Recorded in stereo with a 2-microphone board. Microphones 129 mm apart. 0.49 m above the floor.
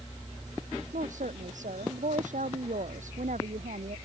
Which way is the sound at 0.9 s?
75° right (ahead or behind).